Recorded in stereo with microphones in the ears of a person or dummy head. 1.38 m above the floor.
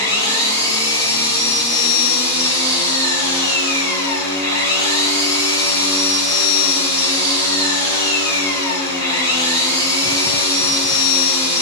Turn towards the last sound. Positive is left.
turn(degrees=-25)  # may be behind; listen again after turning